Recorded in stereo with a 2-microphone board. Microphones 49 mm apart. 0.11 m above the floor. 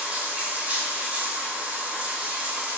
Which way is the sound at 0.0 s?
30° right (ahead or behind).